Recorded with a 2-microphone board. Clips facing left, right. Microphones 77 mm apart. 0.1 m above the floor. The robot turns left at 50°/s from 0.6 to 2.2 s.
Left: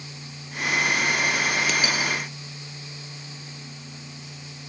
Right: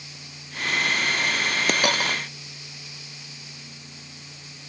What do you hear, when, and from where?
1.7 s a dropped coin: 50° right (ahead or behind); by 2.2 s 75° right (ahead or behind)